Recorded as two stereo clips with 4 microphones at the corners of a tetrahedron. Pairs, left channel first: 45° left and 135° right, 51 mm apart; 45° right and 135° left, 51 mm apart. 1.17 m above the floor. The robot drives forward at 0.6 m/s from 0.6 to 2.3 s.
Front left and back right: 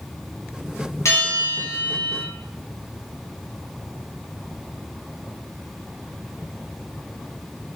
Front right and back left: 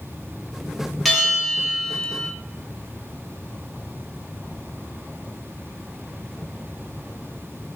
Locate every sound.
1.1 s a bell: 45° left, 0.9 m; by 2.3 s 100° left, 0.6 m